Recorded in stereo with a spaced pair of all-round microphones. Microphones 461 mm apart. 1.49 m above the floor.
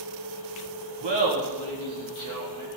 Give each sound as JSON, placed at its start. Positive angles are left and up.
{"t": 1.0, "sound": "laughter", "side_deg": -60, "distance_m": 2.0}